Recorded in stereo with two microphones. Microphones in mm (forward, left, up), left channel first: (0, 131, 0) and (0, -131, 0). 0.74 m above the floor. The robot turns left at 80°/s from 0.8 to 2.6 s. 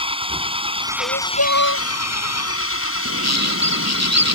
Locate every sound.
0.0 s an engine running: 160° right; by 4.3 s 55° left
1.0 s crying: 135° left; by 1.9 s 65° left
3.0 s a bird: 80° right